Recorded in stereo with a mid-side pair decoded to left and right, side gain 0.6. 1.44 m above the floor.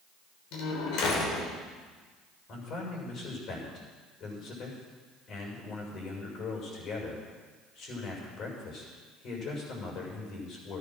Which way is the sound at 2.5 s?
55° left.